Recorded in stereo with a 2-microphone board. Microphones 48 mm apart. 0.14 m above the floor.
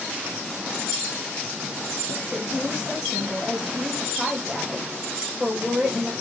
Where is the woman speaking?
5° left (ahead or behind), 5.5 m.